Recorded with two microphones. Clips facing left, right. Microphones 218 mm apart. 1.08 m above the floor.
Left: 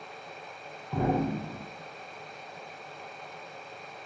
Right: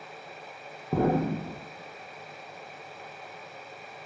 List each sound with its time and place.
0.9 s an explosion: 50° right (ahead or behind), 0.5 m